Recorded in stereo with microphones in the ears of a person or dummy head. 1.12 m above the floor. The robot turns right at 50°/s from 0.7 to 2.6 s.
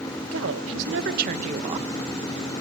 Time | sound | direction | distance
0.3 | a woman speaking | 85° right | 1.3 m